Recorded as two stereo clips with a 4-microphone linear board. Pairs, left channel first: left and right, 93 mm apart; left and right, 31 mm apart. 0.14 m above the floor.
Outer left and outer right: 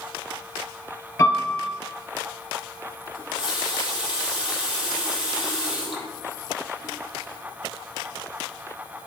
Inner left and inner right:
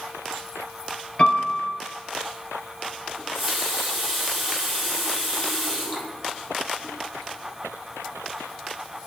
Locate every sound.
1.2 s a piano: 30° left (ahead or behind), 2 m
3.1 s a running tap: 10° right (ahead or behind), 3 m